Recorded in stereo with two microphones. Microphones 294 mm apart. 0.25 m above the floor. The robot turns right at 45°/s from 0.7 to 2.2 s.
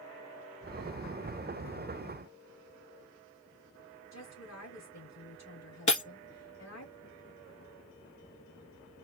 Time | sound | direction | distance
4.1 | a woman speaking | 65° left (ahead or behind) | 3.5 m
5.9 | breaking glass | 75° left (ahead or behind) | 1.6 m